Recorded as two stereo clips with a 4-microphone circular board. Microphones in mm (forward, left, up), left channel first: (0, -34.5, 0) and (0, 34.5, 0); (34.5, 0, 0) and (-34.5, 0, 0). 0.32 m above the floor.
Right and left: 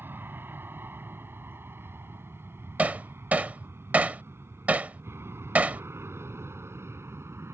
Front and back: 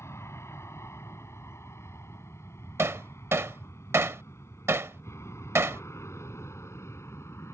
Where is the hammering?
150° left.